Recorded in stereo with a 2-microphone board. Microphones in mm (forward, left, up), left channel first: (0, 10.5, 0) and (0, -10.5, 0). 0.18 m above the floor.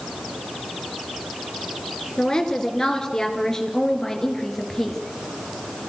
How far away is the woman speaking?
About 3 m.